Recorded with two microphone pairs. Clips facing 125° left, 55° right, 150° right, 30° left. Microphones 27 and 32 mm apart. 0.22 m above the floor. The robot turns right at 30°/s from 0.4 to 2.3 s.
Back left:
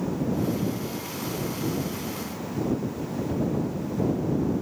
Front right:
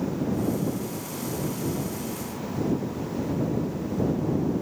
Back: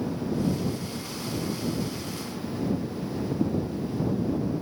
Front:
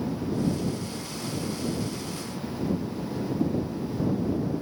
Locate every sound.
Only background noise.